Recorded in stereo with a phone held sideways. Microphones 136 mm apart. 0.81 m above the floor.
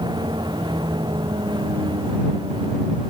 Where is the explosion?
No explosion in this recording.